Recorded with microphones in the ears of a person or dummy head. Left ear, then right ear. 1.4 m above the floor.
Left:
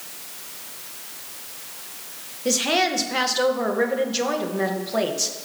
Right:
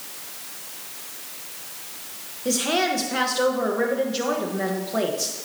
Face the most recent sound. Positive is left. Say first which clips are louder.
# left 2 dB
turn(degrees=20)  # may be behind; listen again after turning